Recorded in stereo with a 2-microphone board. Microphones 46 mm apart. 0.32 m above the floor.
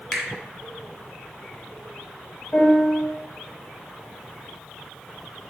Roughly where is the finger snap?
Centre.